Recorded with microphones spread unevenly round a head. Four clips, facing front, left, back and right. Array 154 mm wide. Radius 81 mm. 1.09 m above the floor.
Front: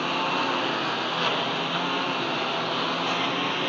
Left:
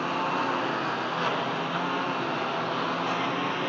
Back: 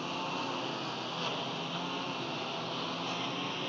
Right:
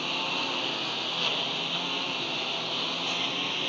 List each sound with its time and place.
0.0 s a lawn mower: 20° left; by 3.7 s 25° left